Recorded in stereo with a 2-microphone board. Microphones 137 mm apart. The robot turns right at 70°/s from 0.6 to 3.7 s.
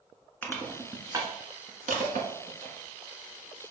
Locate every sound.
0.4 s crushing: 15° left (ahead or behind), 1.5 m; by 2.8 s 45° right (ahead or behind), 1.5 m